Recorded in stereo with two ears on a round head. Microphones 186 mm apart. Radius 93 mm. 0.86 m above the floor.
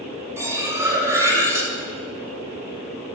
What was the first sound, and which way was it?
Cutlery clinking, 15° right (ahead or behind).